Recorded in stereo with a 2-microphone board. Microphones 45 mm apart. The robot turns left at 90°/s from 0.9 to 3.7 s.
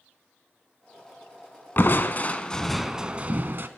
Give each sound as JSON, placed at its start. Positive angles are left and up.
{"t": 1.8, "sound": "crushing", "azimuth_deg": 90, "distance_m": 0.6}